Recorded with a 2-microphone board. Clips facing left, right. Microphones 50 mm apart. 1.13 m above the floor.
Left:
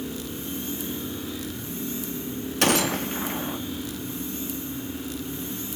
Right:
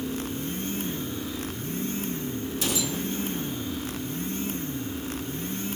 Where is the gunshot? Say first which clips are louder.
Left 9 dB; 65° left (ahead or behind), 1.1 m.